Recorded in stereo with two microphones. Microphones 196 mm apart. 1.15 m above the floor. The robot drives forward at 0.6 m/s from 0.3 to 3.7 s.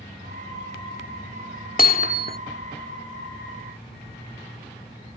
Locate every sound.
1.8 s hammering: 45° left (ahead or behind); by 2.4 s 50° left (ahead or behind)